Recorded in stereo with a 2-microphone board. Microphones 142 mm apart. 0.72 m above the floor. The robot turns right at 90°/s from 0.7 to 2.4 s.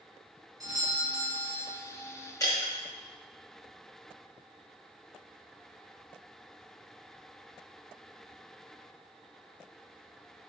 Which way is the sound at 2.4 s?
25° left (ahead or behind).